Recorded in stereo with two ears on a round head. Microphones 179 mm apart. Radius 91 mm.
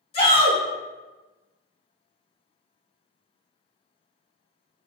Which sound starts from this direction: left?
A shout, at 0.1 s.